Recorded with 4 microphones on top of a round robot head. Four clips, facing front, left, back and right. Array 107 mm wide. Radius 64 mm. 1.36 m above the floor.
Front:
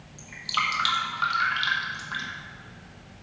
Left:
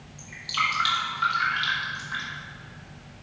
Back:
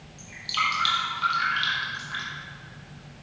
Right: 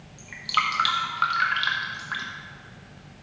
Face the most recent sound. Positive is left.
turn(degrees=-75)